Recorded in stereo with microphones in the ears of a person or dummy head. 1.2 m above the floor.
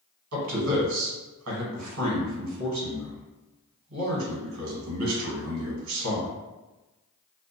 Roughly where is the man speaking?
Right.